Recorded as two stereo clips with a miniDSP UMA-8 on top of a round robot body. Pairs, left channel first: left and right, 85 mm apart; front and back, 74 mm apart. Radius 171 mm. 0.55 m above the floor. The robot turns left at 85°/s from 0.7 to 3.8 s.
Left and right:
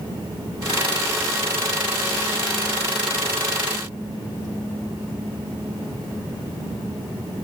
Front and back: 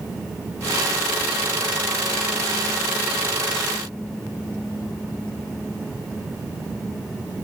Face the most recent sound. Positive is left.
No sound to turn to.